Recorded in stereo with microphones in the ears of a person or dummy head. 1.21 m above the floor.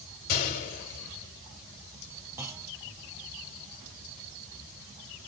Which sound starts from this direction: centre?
A clunk, at 2.4 s.